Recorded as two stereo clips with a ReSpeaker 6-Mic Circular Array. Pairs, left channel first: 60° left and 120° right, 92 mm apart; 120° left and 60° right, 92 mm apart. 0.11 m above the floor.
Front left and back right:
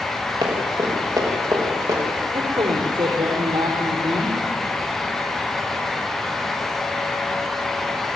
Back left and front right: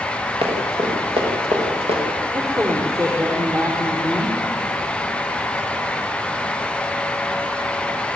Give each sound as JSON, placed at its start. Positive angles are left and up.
{"t": 0.4, "sound": "running footsteps", "azimuth_deg": -80, "distance_m": 6.5}
{"t": 2.3, "sound": "a man speaking", "azimuth_deg": -110, "distance_m": 3.5}